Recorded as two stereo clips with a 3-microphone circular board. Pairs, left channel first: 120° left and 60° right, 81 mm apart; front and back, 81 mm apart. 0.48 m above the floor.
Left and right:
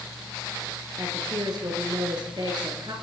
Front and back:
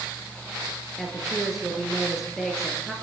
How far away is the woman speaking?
About 7.5 m.